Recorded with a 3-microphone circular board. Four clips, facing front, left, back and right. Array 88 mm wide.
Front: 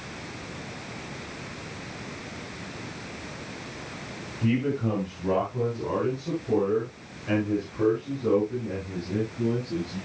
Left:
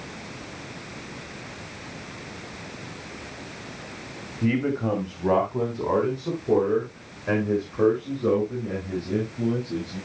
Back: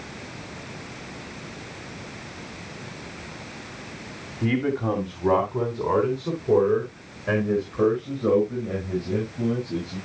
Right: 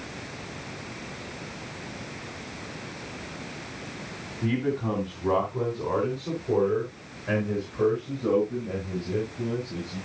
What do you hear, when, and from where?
4.4 s a man speaking: 130° left, 2 m; by 10.0 s 135° left, 8 m